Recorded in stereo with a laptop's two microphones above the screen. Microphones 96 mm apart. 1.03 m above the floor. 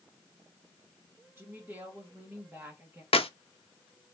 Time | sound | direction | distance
1.4 | a woman speaking | 20° right (ahead or behind) | 1.2 m
3.1 | a clap | 85° left | 0.5 m